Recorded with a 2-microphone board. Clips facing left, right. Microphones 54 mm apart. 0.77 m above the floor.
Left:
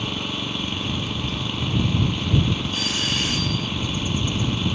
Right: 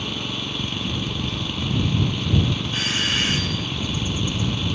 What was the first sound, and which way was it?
An engine running, 10° left (ahead or behind).